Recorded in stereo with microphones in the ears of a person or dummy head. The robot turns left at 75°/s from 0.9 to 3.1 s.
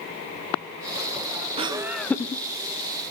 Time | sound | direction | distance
1.6 | laughter | 150° right | 0.6 m